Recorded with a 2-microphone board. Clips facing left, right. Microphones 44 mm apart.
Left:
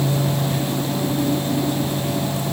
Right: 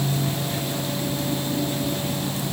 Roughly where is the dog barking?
No dog barking in this recording.